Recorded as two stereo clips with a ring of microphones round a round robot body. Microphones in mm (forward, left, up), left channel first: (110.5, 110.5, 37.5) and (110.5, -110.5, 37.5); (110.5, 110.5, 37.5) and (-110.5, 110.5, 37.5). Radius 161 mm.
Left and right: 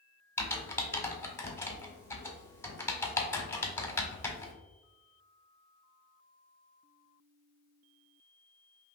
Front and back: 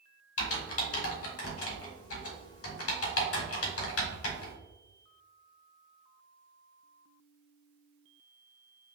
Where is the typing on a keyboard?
10° left, 1.4 m.